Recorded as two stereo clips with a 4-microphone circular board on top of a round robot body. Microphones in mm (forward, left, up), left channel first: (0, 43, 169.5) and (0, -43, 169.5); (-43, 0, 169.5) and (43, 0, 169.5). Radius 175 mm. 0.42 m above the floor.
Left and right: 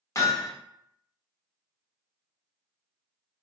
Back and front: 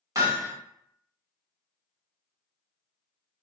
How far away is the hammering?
About 1.5 m.